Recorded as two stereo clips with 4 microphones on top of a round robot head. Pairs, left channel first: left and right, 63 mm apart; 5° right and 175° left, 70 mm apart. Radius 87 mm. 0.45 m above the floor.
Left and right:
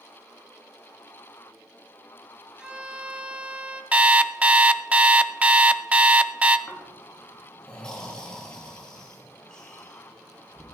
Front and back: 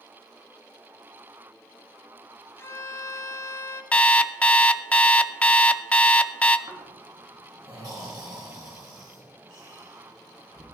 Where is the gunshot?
I don't hear a gunshot.